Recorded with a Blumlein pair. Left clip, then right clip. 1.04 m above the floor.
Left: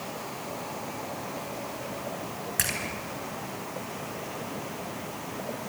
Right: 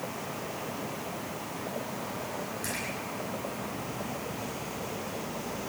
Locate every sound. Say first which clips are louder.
2.6 s a splash: left 9 dB; 45° left, 6 m